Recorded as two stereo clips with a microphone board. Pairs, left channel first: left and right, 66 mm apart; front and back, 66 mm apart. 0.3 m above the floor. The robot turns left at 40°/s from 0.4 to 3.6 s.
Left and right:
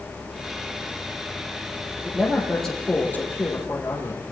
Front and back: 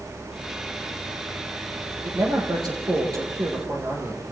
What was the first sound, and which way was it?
A man speaking, 165° right.